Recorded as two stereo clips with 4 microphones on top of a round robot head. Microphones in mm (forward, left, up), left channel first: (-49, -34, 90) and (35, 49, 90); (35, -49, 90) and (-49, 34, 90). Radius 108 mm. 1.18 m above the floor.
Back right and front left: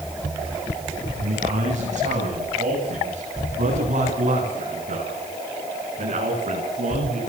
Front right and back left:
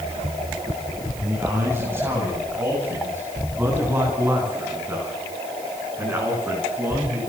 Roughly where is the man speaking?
Ahead left.